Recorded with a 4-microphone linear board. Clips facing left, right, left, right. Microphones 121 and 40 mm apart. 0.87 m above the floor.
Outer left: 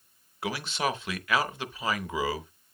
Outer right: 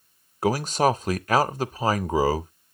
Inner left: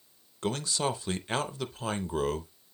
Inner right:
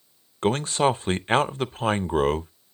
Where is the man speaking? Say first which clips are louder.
Outer right 9 dB, inner right 9 dB; 40° right (ahead or behind), 0.5 m.